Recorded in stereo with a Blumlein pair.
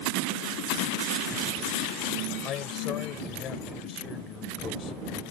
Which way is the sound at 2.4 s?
30° left.